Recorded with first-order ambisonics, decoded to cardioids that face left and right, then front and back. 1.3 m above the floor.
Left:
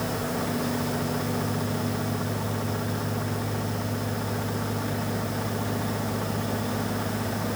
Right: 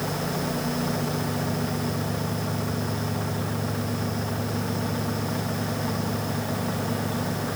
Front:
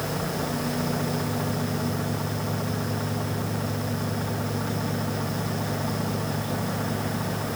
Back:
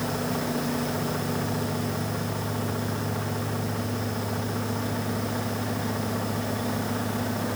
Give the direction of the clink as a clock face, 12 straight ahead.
No clink in this recording.